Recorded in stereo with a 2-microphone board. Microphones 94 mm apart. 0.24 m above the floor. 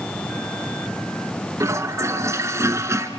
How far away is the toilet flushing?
About 1.1 m.